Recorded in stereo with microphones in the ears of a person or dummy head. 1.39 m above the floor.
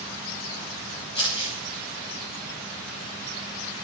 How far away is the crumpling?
About 4 m.